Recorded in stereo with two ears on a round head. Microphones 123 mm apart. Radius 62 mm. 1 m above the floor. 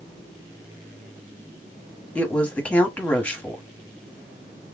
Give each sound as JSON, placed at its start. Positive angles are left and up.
{"t": 2.1, "sound": "a woman speaking", "side_deg": 10, "distance_m": 1.2}